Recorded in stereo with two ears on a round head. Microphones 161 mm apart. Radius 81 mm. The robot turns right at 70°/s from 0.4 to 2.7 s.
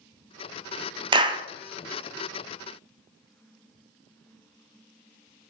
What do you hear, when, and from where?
1.1 s a clap: 25° right (ahead or behind), 0.5 m